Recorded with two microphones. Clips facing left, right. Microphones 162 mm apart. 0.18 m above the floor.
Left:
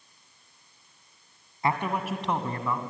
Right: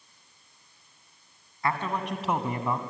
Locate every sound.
1.6 s a man speaking: 25° left (ahead or behind), 1.7 m; by 2.8 s 25° right (ahead or behind), 1.7 m